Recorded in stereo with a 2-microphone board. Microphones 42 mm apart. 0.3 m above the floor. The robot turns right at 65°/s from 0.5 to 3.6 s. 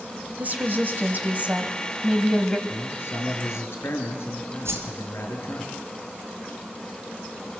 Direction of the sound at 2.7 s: 45° left.